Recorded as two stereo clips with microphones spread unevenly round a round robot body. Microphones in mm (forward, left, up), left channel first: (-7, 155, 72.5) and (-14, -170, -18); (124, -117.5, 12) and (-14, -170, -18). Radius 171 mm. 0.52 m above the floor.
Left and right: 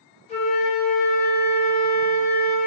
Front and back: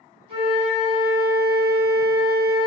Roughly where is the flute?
Behind.